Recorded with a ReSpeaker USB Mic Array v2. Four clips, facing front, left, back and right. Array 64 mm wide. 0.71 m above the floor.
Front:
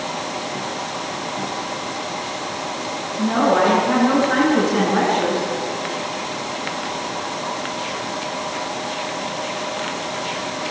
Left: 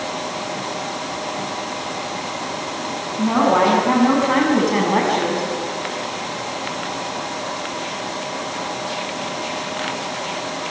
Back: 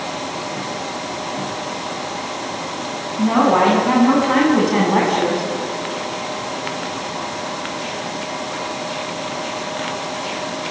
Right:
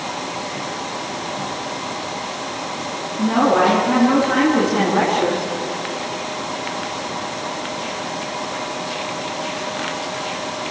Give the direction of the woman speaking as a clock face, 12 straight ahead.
7 o'clock.